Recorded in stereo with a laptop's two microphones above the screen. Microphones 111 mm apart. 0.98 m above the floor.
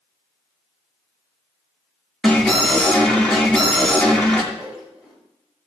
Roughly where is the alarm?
Centre.